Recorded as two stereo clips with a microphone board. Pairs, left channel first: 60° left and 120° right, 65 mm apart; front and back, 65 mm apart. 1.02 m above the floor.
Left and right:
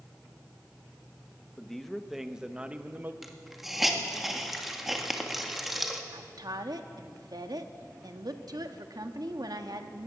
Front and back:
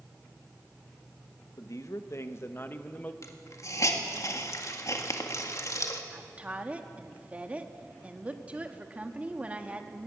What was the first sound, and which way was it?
A man speaking, 20° right.